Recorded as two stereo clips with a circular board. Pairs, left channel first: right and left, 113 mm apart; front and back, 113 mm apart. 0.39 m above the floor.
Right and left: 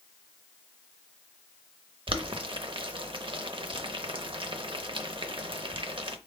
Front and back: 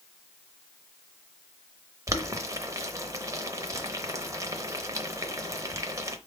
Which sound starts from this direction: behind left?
Boiling, at 2.1 s.